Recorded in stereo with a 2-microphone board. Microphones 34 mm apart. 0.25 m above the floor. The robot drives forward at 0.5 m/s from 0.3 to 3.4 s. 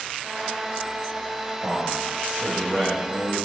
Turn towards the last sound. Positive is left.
turn(degrees=-20)  # may be behind; listen again after turning